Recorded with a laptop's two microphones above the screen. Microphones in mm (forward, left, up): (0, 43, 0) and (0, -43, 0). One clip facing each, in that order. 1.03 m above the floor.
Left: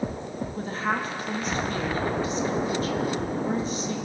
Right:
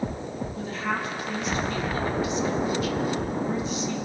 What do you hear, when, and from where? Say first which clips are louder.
0.6 s a woman speaking: left 2 dB; 40° left (ahead or behind), 1.5 m